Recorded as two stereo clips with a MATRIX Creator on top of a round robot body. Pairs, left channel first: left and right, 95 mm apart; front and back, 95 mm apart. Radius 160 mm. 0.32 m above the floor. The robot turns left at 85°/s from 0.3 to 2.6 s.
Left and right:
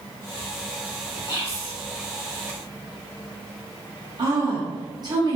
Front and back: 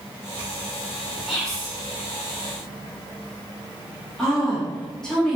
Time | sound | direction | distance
1.3 | whispering | 80° left | 1.2 m
4.2 | a woman speaking | 80° right | 1.2 m